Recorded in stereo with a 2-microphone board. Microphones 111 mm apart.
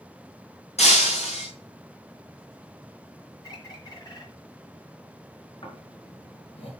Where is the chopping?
No chopping in this recording.